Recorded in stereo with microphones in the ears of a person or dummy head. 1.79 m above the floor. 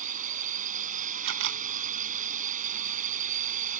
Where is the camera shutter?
55° right (ahead or behind).